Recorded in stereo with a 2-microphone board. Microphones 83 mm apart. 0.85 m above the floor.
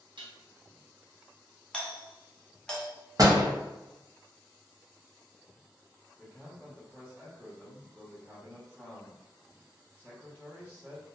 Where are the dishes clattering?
70° right (ahead or behind), 0.6 m.